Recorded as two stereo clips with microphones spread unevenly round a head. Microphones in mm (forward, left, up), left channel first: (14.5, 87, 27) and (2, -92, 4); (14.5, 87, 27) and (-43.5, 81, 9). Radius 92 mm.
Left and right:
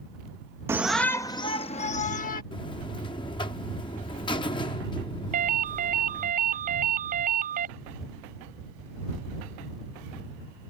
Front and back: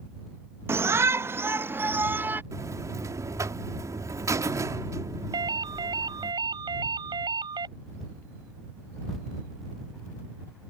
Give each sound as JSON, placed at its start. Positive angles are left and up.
{"t": 0.7, "sound": "a shout", "azimuth_deg": -165}
{"t": 2.5, "sound": "a buzzer", "azimuth_deg": 150}
{"t": 5.3, "sound": "a ringtone", "azimuth_deg": -145}